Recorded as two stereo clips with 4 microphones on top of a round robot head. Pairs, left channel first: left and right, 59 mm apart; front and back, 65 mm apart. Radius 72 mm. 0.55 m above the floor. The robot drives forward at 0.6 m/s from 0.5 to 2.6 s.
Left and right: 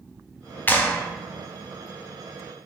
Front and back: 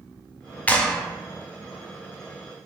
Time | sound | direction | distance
0.7 | a clap | 55° left | 0.7 m